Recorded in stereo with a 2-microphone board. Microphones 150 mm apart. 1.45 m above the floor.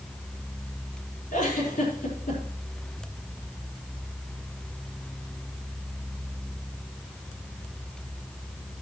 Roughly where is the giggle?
Left.